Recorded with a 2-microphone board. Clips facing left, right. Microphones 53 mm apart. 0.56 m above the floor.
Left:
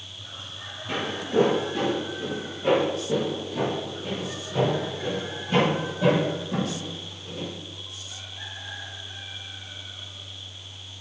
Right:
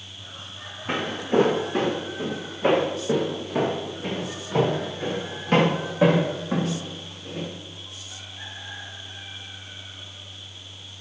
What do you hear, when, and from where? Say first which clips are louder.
0.9 s footsteps: right 3 dB; 55° right (ahead or behind), 4 m; by 7.5 s 70° right (ahead or behind), 7.5 m